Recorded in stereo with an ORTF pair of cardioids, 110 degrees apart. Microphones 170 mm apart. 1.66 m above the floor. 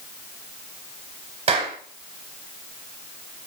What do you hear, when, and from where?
1.5 s a clap: 35° right, 5.5 m